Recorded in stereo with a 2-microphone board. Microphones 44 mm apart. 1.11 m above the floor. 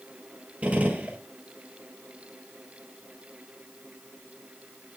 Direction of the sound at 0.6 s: 30° right (ahead or behind).